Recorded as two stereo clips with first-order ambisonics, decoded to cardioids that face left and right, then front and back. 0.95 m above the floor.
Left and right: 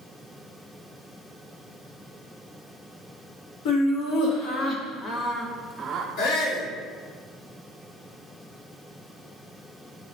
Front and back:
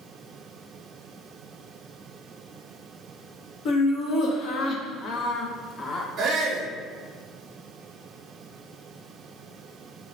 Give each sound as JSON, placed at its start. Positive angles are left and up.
{"t": 3.6, "sound": "laughter", "azimuth_deg": 55, "distance_m": 2.0}
{"t": 6.2, "sound": "a shout", "azimuth_deg": 105, "distance_m": 3.0}